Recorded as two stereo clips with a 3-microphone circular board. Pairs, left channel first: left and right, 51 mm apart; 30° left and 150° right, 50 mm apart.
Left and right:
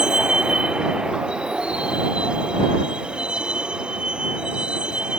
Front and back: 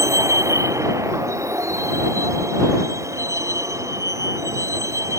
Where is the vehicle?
165° right; by 5.2 s 160° right.